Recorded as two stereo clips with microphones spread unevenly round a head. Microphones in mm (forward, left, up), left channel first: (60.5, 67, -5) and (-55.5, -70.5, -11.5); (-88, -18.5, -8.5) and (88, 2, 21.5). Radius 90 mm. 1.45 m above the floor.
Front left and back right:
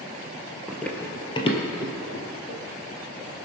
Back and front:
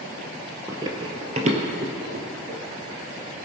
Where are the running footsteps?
40° right, 1.7 m; by 2.6 s 25° left, 3 m.